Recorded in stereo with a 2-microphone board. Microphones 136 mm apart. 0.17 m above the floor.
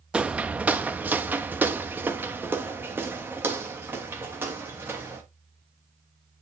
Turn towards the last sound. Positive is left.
turn(degrees=-15)  # may be behind; listen again after turning